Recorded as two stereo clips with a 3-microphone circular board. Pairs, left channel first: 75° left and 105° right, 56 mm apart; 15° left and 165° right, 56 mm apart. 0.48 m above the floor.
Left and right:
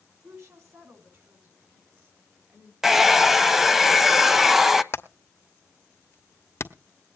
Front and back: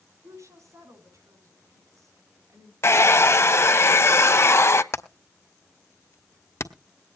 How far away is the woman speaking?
About 5.5 m.